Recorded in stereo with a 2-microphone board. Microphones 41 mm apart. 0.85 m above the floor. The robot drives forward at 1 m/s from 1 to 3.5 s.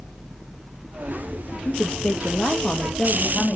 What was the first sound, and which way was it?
A woman speaking, 35° left (ahead or behind).